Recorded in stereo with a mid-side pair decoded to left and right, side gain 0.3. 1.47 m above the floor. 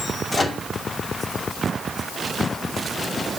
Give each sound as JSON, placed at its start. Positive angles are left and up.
{"t": 0.3, "sound": "a microwave", "azimuth_deg": 45, "distance_m": 2.5}